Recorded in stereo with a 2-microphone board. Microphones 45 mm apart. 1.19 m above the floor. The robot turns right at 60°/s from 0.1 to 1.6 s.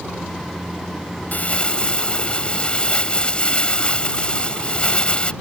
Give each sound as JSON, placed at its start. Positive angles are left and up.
{"t": 1.3, "sound": "crumpling", "side_deg": 40}